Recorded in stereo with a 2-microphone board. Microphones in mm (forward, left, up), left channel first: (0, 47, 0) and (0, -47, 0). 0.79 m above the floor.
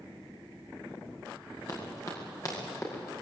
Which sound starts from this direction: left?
Running footsteps, at 1.7 s.